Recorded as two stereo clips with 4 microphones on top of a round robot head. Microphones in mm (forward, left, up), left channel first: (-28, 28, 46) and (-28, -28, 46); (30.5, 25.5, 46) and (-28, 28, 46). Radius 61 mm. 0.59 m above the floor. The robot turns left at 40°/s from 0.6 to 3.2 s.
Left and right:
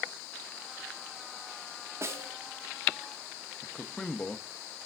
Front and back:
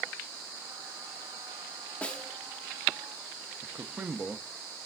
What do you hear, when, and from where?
2.0 s a snare drum: 65° right, 1.0 m; by 2.3 s 75° right, 1.0 m
3.6 s a man speaking: 160° left, 0.6 m